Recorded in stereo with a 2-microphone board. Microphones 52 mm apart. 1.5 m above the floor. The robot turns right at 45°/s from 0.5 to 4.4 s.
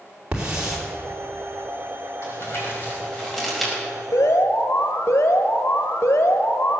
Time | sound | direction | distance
0.3 | a hiss | 15° right (ahead or behind) | 3.5 m
2.2 | crumpling | 60° left (ahead or behind) | 5 m
4.1 | an alarm | 70° left (ahead or behind) | 1.5 m